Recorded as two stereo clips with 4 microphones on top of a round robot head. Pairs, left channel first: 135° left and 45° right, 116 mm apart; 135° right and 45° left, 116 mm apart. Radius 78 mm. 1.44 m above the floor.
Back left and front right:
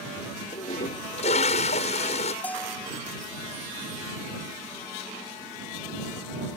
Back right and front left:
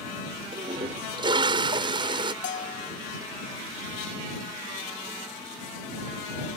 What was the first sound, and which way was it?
A toilet flushing, 100° left.